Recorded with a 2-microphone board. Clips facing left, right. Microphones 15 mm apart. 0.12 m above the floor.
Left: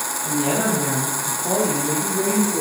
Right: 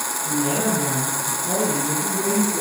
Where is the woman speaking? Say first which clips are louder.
Left 1 dB; 70° left (ahead or behind), 7.5 m; by 2.6 s 75° left (ahead or behind), 6.5 m.